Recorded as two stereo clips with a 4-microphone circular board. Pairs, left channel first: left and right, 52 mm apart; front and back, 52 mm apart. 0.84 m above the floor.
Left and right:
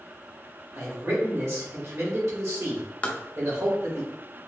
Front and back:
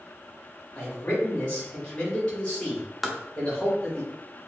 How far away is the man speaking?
About 2 m.